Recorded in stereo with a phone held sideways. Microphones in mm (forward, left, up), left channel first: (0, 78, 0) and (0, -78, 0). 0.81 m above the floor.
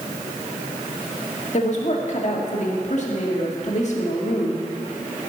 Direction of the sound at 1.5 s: 50° left (ahead or behind).